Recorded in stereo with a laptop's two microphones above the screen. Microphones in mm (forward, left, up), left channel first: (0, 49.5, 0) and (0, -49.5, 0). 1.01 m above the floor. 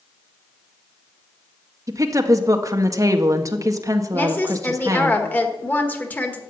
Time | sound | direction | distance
1.9 | a woman speaking | 35° right (ahead or behind) | 1.7 m
4.1 | a woman speaking | 20° left (ahead or behind) | 1.5 m